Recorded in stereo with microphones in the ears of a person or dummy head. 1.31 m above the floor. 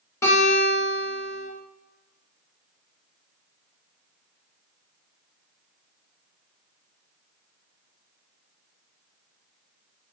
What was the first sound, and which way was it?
A guitar, 15° left (ahead or behind).